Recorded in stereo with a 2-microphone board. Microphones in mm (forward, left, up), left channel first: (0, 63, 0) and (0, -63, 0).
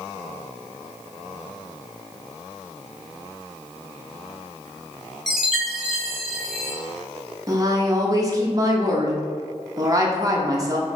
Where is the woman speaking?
30° right (ahead or behind), 0.6 m.